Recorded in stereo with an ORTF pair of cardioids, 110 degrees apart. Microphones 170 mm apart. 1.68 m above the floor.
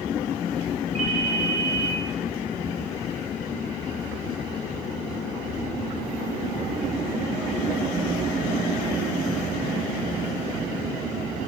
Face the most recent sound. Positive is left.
turn(degrees=-45)